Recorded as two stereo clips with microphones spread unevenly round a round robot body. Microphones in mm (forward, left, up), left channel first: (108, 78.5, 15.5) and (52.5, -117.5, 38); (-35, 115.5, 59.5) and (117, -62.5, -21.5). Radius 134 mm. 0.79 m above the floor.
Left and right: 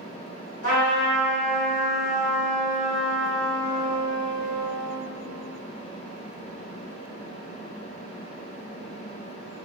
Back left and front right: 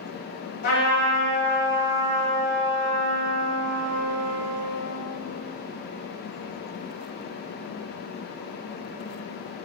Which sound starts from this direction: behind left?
A trumpet, at 0.6 s.